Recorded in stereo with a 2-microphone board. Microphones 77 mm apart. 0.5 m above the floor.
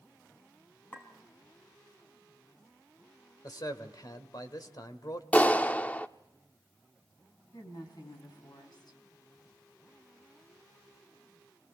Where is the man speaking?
60° left (ahead or behind), 1.6 m.